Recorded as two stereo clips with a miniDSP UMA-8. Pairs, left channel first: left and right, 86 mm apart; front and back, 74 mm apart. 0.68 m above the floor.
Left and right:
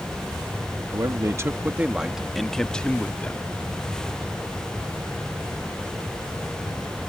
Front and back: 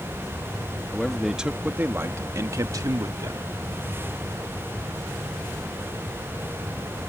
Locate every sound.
0.9 s a man speaking: 80° right; by 3.5 s 160° left